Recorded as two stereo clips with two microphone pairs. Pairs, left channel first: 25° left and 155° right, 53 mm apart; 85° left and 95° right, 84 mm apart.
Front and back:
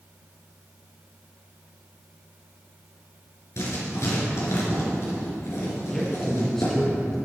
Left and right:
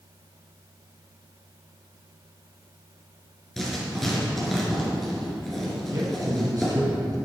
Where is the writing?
Straight ahead, 3.5 m.